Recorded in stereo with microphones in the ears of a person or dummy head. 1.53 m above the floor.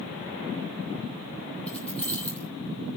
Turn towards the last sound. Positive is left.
turn(degrees=10)  # may be behind; listen again after turning